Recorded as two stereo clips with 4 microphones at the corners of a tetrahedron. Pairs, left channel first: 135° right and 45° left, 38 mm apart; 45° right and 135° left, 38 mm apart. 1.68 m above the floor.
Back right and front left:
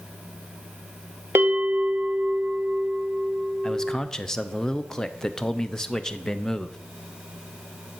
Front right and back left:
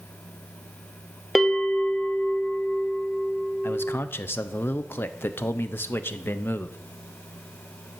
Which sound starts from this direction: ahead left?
A bell, at 1.4 s.